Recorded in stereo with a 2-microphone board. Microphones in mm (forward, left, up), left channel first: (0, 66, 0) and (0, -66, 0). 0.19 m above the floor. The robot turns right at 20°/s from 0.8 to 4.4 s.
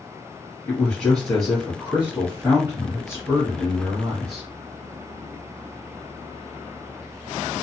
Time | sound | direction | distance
0.7 | a man speaking | 165° left | 2.0 m